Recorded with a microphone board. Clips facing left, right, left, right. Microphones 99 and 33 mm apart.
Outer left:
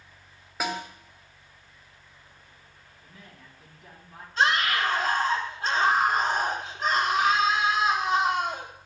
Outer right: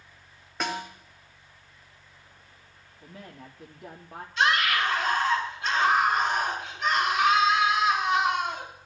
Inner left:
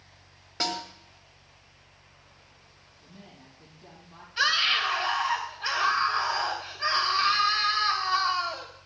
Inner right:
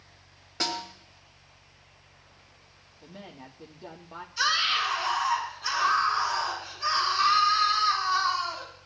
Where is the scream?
40° left (ahead or behind), 4.5 m.